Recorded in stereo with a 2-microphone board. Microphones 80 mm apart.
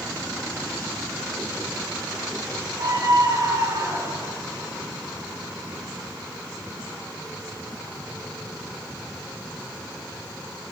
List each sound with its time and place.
2.8 s a scream: 35° right (ahead or behind), 6.5 m; by 4.3 s 30° right (ahead or behind), 8.5 m